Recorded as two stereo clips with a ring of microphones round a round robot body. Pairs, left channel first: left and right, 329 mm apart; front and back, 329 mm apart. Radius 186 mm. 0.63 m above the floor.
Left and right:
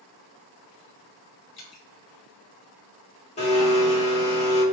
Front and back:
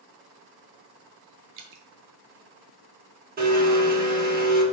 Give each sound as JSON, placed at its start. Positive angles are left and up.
{"t": 1.6, "sound": "dripping", "azimuth_deg": 150, "distance_m": 0.9}
{"t": 3.4, "sound": "a blender", "azimuth_deg": 145, "distance_m": 1.3}